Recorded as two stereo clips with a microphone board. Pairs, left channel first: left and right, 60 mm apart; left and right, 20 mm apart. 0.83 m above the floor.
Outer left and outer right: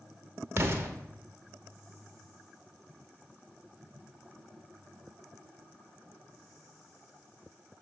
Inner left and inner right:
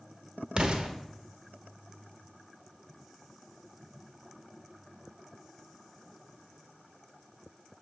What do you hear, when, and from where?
0.6 s an explosion: 40° right (ahead or behind), 1.0 m